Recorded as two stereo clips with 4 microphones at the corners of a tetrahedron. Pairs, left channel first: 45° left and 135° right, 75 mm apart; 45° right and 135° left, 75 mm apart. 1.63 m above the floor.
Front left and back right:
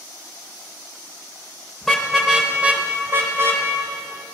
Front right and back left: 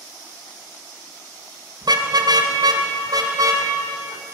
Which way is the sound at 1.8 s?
130° left.